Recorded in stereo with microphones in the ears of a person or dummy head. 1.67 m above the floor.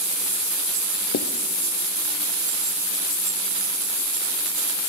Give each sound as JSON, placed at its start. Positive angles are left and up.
{"t": 1.1, "sound": "writing", "side_deg": 45, "distance_m": 0.5}